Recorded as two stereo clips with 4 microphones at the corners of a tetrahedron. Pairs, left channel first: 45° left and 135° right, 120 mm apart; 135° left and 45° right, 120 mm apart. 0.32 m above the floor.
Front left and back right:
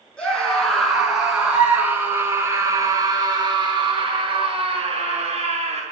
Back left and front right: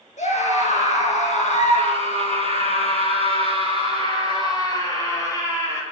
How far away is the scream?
About 6 m.